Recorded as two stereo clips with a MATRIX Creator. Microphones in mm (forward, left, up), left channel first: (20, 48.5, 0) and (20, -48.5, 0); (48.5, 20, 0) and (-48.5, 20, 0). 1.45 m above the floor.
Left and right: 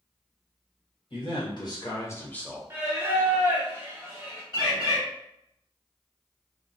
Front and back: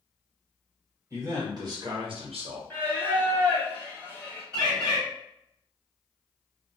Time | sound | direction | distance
1.1 | a man speaking | 120° left | 1.3 m
2.7 | singing | 50° right | 0.8 m
4.5 | a bird | 130° left | 1.6 m